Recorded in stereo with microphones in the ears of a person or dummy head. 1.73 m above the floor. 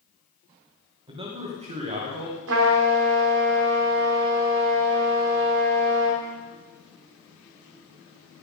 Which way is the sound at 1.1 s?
25° right (ahead or behind).